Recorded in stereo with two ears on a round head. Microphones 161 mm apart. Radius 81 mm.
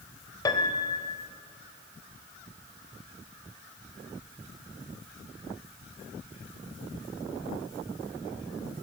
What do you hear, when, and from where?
0.5 s a piano: 20° left (ahead or behind), 1.8 m